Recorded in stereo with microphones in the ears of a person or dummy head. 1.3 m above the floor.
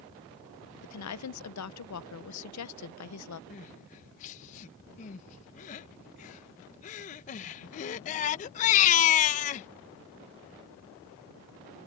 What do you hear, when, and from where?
0.8 s a woman speaking: 75° left (ahead or behind)
3.5 s crying: 40° left (ahead or behind)